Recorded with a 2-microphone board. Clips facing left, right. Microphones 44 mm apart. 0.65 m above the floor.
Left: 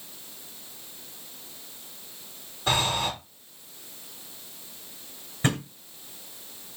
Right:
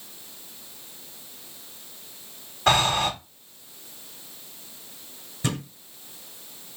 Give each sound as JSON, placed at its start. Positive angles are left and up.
{"t": 2.7, "sound": "breathing", "side_deg": -70, "distance_m": 0.8}
{"t": 5.4, "sound": "a thud", "side_deg": 35, "distance_m": 1.3}